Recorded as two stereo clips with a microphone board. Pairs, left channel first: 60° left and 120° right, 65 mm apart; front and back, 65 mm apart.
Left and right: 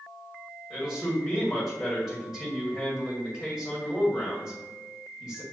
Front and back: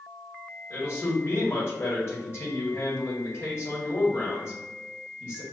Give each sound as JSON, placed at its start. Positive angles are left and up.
{"t": 0.7, "sound": "a man speaking", "azimuth_deg": -25, "distance_m": 1.7}